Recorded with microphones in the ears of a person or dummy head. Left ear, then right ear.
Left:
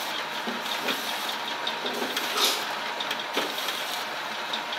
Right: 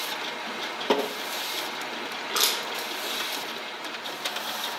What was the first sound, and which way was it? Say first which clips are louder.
Crushing: right 1 dB; 55° right (ahead or behind).